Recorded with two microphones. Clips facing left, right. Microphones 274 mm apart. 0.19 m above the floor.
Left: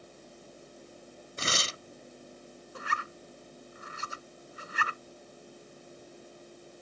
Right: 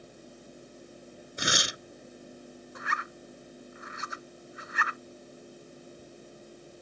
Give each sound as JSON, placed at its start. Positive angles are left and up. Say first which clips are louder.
{"t": 1.4, "sound": "tearing paper", "louder": "right 3 dB", "side_deg": -15}
{"t": 2.8, "sound": "a zipper", "louder": "left 2 dB", "side_deg": 40}